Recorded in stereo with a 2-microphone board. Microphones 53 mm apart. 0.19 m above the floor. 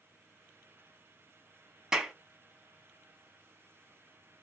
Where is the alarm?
I don't hear an alarm.